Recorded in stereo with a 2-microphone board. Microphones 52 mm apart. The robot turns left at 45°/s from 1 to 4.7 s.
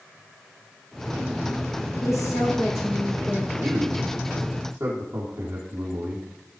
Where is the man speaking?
25° right, 5 m; by 6.2 s 80° right, 5 m.